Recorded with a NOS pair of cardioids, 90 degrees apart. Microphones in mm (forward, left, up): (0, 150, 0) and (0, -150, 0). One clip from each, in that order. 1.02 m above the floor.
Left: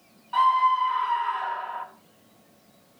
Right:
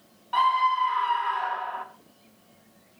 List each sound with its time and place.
0.3 s a scream: 20° right, 3 m